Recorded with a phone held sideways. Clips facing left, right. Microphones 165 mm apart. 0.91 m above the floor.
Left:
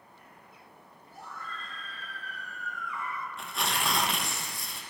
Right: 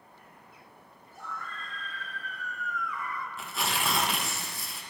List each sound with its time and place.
1.1 s a scream: 40° left (ahead or behind), 3.5 m; by 3.3 s 25° left (ahead or behind), 1.4 m
3.4 s tearing paper: centre (ahead or behind), 1.0 m